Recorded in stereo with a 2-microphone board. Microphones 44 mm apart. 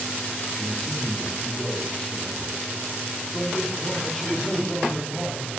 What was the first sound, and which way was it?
A man speaking, 5° left (ahead or behind).